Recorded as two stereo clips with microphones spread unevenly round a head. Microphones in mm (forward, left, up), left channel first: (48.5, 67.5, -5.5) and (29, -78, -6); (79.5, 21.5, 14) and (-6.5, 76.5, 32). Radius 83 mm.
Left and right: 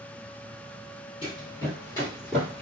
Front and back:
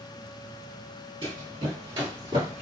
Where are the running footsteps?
135° left, 2 m; by 2.6 s 160° left, 1.7 m.